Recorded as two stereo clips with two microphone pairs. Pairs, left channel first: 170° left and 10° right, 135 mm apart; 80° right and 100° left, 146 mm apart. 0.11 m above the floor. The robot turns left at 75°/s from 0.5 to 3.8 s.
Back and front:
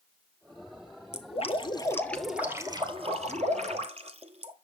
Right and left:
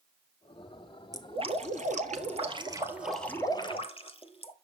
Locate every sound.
1.1 s dripping: 165° left, 1.4 m; by 4.5 s 35° right, 1.4 m